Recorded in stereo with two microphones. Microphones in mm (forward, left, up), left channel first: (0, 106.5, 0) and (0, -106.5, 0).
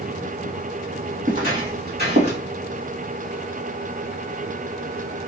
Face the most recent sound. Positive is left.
turn(degrees=-55)  # may be behind; listen again after turning